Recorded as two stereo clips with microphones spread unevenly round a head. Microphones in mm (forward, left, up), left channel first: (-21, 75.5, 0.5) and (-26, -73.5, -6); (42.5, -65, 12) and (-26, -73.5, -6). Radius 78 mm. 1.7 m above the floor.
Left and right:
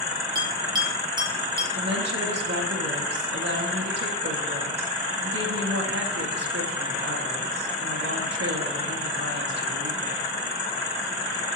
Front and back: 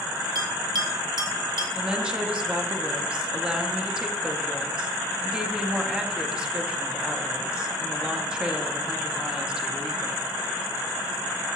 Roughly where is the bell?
Behind right.